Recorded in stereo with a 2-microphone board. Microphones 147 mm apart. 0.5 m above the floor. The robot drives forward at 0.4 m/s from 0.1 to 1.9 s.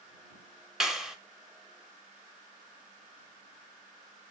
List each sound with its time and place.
0.8 s a clap: 5° right (ahead or behind), 1.0 m